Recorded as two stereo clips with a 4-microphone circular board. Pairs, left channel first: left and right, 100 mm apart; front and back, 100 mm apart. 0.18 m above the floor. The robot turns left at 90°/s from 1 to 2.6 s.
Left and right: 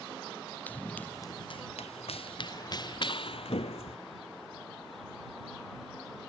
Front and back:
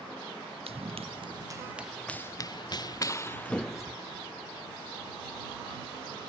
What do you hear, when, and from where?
0.7 s running footsteps: 165° left; by 4.0 s 105° left